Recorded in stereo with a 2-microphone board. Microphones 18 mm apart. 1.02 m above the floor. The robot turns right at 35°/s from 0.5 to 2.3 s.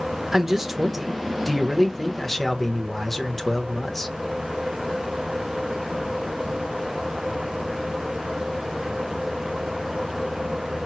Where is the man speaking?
35° right, 0.9 m; by 4.2 s 30° left, 0.9 m.